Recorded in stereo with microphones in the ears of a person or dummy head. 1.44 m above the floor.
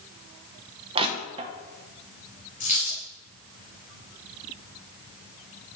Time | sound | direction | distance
0.9 | crushing | 30° right (ahead or behind) | 0.8 m
2.6 | a dropped coin | 45° left (ahead or behind) | 3 m